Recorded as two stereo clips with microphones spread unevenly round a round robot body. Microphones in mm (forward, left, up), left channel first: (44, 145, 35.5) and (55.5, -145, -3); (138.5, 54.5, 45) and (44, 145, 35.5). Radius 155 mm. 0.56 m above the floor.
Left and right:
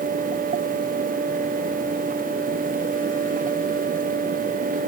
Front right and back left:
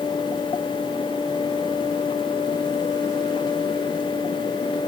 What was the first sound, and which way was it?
Only background noise.